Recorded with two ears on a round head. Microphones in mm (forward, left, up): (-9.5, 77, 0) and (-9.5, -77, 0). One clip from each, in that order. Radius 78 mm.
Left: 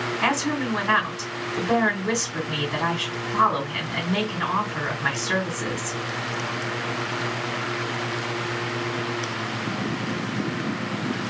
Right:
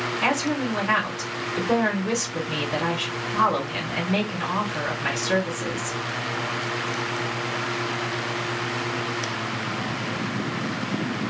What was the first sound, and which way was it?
A woman speaking, 10° left (ahead or behind).